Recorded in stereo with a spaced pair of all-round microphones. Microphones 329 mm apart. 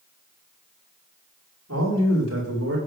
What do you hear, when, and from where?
1.7 s a man speaking: 50° right (ahead or behind), 6 m; by 2.8 s 45° right (ahead or behind), 5.5 m